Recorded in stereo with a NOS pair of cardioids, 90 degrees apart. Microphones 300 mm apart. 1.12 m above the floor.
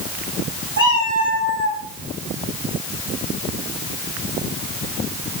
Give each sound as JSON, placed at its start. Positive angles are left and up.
{"t": 0.8, "sound": "a cat meowing", "azimuth_deg": -20, "distance_m": 1.7}